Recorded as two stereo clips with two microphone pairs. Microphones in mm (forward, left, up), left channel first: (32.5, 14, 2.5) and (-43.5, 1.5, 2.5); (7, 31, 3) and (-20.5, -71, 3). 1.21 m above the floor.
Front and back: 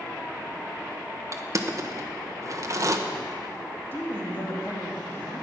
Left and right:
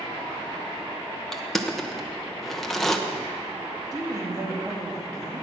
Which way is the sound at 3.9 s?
50° right.